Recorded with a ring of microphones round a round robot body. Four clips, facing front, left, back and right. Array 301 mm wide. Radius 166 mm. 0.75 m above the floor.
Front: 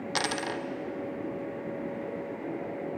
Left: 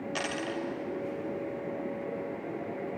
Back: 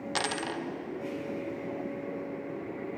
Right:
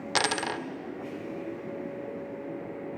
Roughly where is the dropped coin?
Right.